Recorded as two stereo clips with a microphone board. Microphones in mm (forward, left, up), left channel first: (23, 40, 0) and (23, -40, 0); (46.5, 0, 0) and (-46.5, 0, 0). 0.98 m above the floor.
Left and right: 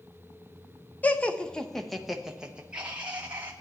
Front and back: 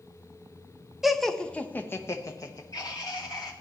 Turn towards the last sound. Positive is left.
turn(degrees=-25)